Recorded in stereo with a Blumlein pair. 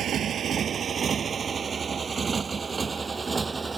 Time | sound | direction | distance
0.0 | a motorcycle | 25° right | ?